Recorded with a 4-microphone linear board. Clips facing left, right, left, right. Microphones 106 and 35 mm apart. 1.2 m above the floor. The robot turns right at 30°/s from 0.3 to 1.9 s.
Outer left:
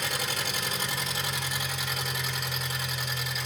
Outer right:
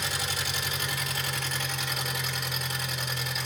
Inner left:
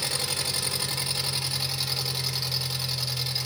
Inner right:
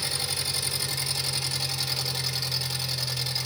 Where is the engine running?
130° left, 1.4 m; by 3.5 s straight behind, 1.4 m.